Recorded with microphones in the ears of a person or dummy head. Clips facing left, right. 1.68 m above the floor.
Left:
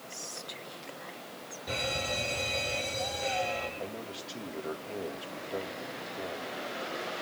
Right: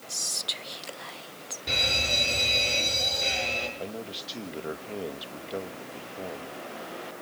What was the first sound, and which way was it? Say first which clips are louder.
Whispering: right 1 dB; 50° right (ahead or behind).